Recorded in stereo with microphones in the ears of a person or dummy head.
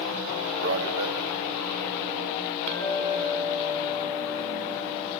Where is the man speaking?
65° right (ahead or behind), 2.5 m.